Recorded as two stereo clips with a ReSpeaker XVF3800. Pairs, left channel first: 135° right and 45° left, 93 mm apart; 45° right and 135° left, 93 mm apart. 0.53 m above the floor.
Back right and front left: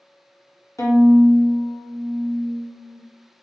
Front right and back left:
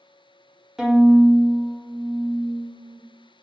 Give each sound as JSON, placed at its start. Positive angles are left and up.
{"t": 0.8, "sound": "a violin", "azimuth_deg": -145, "distance_m": 0.8}